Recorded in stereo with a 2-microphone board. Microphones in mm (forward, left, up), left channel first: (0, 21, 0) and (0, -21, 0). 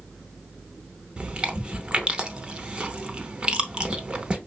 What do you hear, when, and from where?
1.2 s chewing: 25° right (ahead or behind), 0.6 m